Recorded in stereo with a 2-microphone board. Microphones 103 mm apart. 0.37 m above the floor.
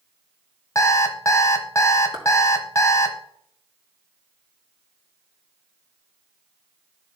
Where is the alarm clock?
30° left (ahead or behind), 1.3 m.